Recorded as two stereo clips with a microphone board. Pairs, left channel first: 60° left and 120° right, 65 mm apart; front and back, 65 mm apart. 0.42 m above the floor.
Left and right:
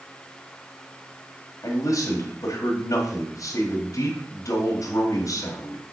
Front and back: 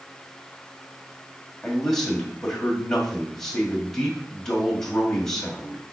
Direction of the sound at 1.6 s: 85° left.